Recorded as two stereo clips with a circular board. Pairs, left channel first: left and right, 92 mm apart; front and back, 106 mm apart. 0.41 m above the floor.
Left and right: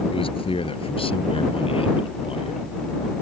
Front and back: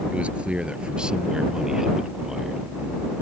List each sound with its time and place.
0.1 s a man speaking: 100° left; by 2.6 s 95° left